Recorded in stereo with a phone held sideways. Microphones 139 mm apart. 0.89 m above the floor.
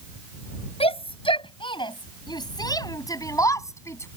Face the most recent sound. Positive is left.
turn(degrees=20)  # may be behind; listen again after turning